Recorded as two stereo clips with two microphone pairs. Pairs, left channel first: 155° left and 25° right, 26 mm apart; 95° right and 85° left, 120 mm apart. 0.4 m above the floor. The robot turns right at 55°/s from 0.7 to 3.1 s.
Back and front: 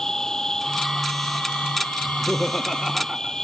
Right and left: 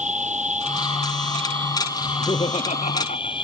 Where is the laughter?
155° right; by 3.4 s 95° right.